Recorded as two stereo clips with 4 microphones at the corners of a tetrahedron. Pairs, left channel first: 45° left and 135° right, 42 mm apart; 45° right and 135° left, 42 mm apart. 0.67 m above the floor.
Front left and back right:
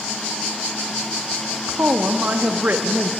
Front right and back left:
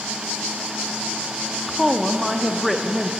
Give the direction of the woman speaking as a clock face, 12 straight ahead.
4 o'clock.